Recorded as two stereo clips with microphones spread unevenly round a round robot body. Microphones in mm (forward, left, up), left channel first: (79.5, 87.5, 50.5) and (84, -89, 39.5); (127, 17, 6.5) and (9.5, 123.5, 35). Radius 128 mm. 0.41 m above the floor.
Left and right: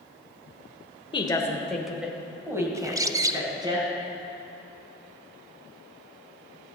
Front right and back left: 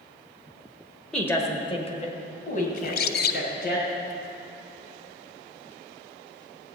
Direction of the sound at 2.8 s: 15° right.